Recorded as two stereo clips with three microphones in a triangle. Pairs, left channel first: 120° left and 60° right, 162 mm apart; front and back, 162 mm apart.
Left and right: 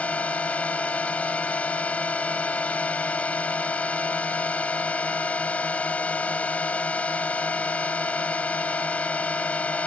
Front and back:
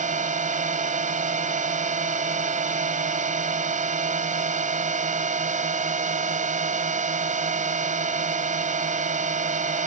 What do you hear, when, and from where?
0.0 s a drone: 160° right